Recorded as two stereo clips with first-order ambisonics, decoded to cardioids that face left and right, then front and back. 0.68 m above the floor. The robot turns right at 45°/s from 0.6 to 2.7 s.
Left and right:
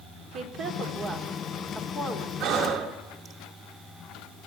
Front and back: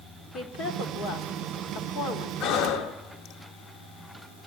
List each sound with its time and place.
0.3 s a woman speaking: 45° right, 2 m; by 2.3 s 30° left, 2 m
2.4 s breathing: 30° right, 1.4 m; by 3.4 s 20° right, 1.4 m